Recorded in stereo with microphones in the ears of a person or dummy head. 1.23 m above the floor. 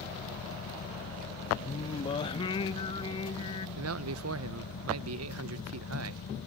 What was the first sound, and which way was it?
A fan, 80° left.